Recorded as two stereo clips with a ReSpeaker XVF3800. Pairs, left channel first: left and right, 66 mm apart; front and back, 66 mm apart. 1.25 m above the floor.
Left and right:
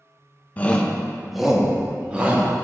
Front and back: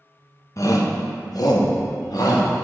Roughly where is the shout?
Ahead left.